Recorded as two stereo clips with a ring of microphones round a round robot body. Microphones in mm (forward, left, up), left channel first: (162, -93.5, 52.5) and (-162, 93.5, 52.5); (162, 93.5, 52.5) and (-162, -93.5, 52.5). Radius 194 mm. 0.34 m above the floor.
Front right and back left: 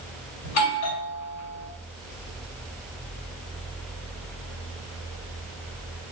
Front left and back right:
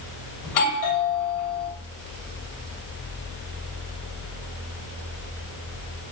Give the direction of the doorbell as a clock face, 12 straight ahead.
12 o'clock.